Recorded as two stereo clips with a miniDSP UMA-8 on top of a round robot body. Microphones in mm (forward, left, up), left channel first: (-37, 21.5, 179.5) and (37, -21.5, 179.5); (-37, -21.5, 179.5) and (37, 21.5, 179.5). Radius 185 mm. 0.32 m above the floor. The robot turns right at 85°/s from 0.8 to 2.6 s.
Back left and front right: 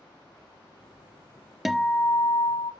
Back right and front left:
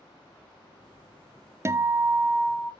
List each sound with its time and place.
1.6 s a guitar: 55° left, 0.6 m; by 2.7 s 135° left, 0.6 m